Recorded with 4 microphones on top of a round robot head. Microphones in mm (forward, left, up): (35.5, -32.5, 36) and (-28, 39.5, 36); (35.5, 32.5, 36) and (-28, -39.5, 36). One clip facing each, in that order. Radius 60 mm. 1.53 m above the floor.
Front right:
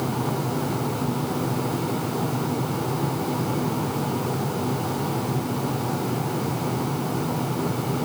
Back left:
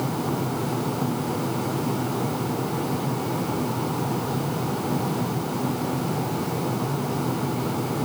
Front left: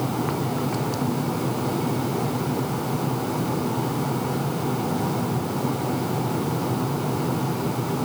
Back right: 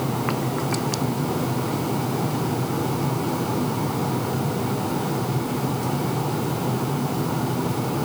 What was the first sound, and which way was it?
Only background noise.